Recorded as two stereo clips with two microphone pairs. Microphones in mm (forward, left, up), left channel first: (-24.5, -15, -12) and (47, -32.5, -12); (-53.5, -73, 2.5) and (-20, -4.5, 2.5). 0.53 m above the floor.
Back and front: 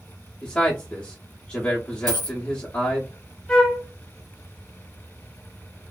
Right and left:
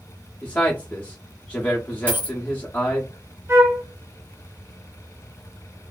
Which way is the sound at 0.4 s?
140° right.